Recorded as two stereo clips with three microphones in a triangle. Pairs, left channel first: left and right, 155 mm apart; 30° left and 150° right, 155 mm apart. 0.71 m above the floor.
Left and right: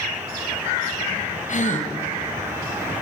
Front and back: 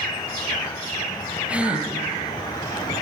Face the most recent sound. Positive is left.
turn(degrees=125)